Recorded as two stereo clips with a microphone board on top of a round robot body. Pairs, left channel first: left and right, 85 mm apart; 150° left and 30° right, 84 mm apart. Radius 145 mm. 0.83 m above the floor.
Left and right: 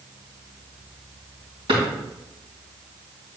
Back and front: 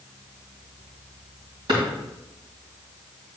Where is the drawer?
65° right, 2.5 m.